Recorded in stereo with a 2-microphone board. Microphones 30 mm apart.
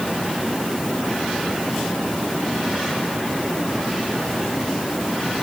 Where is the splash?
I don't hear a splash.